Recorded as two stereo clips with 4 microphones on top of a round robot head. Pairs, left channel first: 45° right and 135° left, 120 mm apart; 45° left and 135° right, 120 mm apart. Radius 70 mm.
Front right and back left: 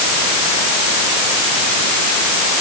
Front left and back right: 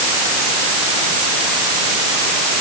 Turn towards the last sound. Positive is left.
No sound to turn to.